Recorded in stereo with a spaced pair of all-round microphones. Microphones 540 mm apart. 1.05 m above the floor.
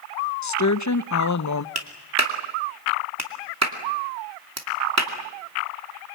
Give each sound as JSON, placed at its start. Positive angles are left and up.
{"t": 0.4, "sound": "a woman speaking", "side_deg": 35, "distance_m": 0.6}
{"t": 1.8, "sound": "a clap", "side_deg": -30, "distance_m": 2.5}